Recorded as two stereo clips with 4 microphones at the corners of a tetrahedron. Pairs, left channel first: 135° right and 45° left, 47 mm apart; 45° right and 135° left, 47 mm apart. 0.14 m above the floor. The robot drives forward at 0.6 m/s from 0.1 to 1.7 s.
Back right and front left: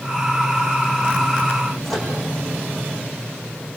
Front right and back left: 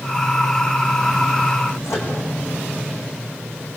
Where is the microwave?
45° right, 8 m.